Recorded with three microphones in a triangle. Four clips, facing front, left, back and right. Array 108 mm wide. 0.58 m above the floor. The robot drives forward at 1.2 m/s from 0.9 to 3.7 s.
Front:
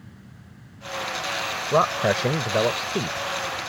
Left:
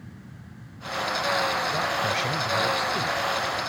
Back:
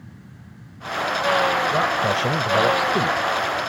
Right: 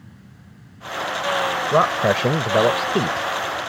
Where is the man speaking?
65° right; by 3.3 s 105° right.